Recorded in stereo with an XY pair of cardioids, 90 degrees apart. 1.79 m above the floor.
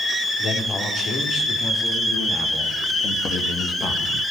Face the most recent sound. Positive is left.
turn(degrees=75)